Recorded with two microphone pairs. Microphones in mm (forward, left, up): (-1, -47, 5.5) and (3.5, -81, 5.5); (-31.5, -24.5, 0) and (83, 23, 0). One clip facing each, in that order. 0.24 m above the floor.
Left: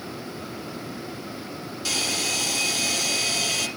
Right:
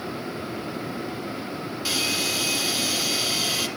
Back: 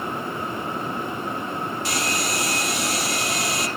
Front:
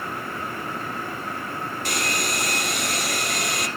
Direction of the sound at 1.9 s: 15° right.